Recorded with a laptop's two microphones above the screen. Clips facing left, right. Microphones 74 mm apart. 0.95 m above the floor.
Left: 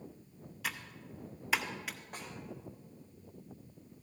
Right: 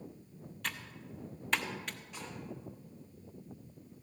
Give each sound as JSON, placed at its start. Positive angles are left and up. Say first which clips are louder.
{"t": 0.6, "sound": "typing on a keyboard", "louder": "left 1 dB", "side_deg": 5, "distance_m": 0.7}
{"t": 2.1, "sound": "a snare drum", "louder": "even", "side_deg": 45, "distance_m": 4.5}